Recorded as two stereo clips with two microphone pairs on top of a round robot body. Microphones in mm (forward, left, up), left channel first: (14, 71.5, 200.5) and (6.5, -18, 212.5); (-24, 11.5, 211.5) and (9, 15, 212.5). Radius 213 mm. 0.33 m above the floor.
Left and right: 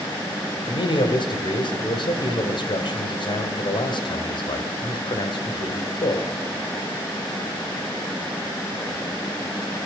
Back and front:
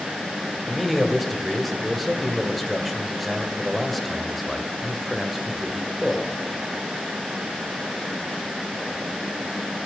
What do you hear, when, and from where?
0.7 s a man speaking: 100° left, 2 m